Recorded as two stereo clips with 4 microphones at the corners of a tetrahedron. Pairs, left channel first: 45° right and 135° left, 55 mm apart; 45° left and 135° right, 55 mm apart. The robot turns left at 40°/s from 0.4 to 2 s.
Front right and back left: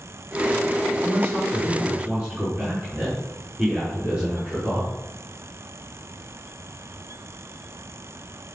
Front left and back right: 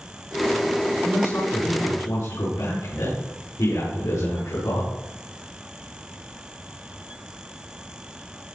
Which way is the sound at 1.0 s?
100° left.